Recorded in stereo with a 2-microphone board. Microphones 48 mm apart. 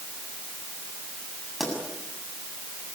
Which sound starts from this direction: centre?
A pop, at 1.6 s.